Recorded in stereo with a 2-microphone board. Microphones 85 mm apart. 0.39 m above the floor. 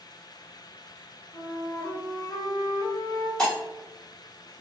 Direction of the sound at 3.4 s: 10° left (ahead or behind).